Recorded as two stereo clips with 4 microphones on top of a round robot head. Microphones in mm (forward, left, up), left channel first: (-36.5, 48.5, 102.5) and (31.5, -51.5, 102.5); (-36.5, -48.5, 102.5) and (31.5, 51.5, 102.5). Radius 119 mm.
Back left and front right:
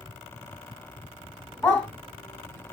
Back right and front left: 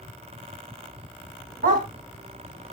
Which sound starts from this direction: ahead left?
A dog barking, at 1.6 s.